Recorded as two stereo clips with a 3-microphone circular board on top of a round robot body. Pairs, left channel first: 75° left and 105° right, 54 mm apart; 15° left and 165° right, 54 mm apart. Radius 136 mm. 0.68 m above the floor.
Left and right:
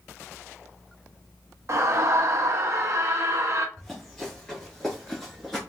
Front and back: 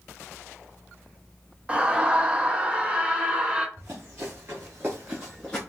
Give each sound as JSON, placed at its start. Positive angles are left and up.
{"t": 1.7, "sound": "a scream", "azimuth_deg": -100, "distance_m": 1.1}
{"t": 3.8, "sound": "running footsteps", "azimuth_deg": 155, "distance_m": 1.2}